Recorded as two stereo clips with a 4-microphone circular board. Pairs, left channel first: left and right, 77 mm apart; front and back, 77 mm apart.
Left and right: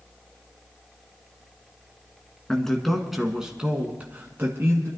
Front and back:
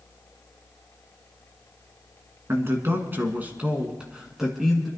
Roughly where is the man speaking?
Behind.